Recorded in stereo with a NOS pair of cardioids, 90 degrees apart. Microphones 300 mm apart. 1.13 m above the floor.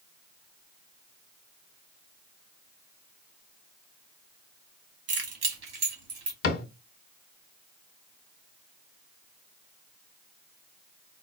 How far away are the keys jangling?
About 1.6 m.